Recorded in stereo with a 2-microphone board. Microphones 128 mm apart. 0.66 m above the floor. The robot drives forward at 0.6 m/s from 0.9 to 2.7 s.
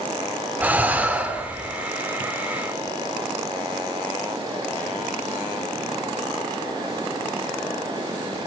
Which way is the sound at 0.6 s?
15° right (ahead or behind).